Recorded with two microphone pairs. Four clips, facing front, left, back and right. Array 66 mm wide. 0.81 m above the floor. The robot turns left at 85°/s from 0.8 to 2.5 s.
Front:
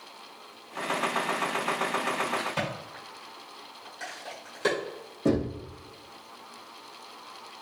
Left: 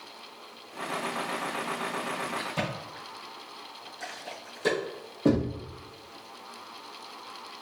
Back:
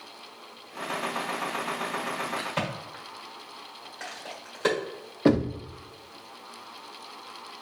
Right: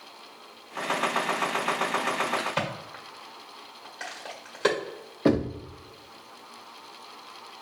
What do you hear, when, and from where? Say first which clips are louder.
2.4 s a crack: right 3 dB, even; 100° right, 1.9 m; by 4.8 s 110° right, 1.9 m
5.2 s knocking: right 1 dB, back 4 dB; 140° right, 0.7 m